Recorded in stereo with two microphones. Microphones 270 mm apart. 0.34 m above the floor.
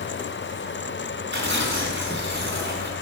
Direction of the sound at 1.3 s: 45° right (ahead or behind).